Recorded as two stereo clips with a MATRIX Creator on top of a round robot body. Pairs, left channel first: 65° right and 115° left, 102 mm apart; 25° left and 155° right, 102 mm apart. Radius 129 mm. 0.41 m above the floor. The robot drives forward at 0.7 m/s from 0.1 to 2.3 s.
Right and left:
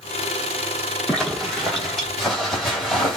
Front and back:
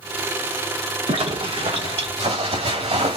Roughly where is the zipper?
Behind right.